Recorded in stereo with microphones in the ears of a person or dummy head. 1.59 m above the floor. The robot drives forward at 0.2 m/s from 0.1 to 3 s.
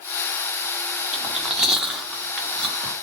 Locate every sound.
1.1 s chewing: centre (ahead or behind), 0.7 m